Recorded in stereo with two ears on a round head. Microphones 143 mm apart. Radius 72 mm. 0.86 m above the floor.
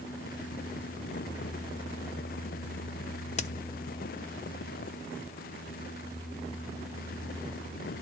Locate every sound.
3.4 s a crack: 45° left (ahead or behind), 0.6 m